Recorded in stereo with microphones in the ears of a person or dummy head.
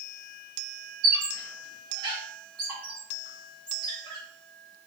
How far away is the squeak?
About 0.9 m.